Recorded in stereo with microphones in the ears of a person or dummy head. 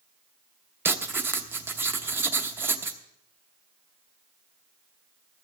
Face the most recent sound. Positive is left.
turn(degrees=-15)  # may be behind; listen again after turning